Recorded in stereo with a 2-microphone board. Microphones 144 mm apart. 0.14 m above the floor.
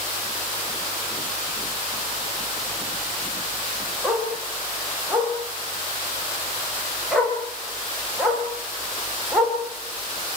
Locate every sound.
4.0 s a dog barking: centre (ahead or behind), 9.5 m